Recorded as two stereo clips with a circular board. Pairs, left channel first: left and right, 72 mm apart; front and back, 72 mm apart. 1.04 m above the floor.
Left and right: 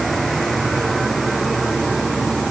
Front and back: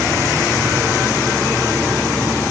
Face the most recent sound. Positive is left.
No sound to turn to.